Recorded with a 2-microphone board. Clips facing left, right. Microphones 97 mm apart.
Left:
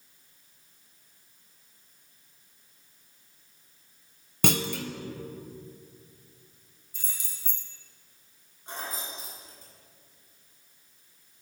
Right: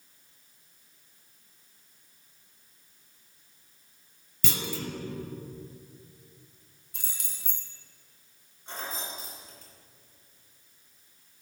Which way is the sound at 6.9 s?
70° right (ahead or behind).